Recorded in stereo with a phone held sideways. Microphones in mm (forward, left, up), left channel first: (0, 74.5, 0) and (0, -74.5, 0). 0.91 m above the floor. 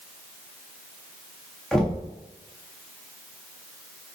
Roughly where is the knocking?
Centre.